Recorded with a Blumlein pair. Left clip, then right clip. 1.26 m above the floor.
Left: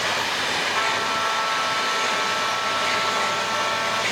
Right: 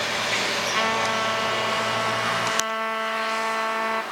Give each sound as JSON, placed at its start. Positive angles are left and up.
{"t": 0.7, "sound": "a trumpet", "azimuth_deg": -65, "distance_m": 1.1}